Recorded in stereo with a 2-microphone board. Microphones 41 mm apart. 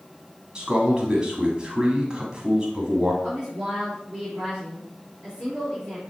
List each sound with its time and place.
0.6 s a man speaking: 20° right (ahead or behind), 1.4 m
3.2 s a woman speaking: 20° right (ahead or behind), 4 m